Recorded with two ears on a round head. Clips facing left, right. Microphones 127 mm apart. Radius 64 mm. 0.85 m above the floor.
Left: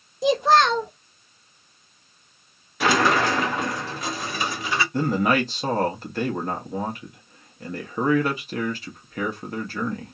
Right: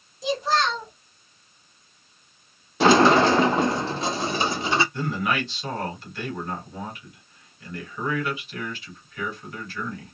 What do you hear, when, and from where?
0.2 s a child speaking: 50° left (ahead or behind), 0.6 m
2.8 s a sliding door: 25° right (ahead or behind), 0.6 m
4.9 s a man speaking: 35° left (ahead or behind), 1.2 m